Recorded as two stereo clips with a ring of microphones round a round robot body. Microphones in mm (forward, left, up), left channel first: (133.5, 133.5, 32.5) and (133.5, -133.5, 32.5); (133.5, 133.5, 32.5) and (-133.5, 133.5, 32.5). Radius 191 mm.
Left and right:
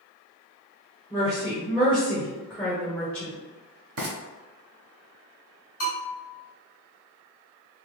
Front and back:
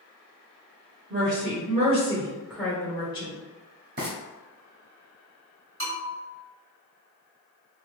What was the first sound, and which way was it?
A woman speaking, straight behind.